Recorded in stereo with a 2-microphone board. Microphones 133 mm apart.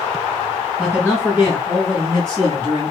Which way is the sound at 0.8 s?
Centre (ahead or behind).